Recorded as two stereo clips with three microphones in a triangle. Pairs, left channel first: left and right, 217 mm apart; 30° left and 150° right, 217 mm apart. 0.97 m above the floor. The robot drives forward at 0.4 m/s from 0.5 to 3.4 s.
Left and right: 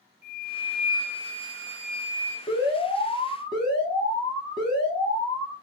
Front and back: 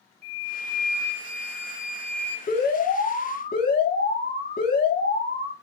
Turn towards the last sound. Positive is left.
turn(degrees=35)